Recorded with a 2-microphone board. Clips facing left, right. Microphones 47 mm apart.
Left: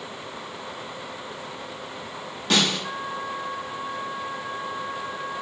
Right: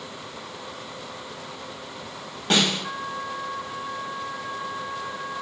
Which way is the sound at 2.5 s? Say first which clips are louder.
Even; 30° right (ahead or behind).